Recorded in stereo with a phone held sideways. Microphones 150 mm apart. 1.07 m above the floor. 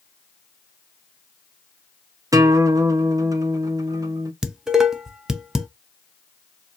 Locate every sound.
2.3 s a guitar: 20° right (ahead or behind), 0.5 m
4.4 s dishes clattering: 5° right (ahead or behind), 0.5 m